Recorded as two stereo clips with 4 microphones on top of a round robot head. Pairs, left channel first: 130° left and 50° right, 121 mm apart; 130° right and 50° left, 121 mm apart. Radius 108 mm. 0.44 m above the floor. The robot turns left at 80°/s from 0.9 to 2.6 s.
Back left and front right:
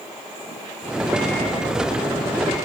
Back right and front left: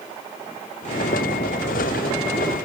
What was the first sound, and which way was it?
Only background noise.